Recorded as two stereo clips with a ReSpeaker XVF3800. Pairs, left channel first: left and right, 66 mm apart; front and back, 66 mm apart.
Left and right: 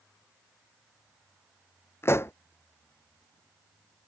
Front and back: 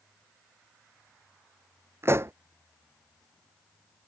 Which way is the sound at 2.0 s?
135° left.